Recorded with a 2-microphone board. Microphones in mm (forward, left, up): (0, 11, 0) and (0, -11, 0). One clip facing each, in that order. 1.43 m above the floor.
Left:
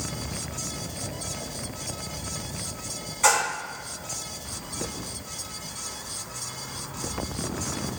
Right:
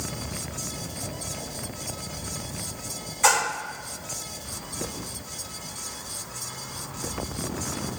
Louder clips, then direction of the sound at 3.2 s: Even; centre (ahead or behind).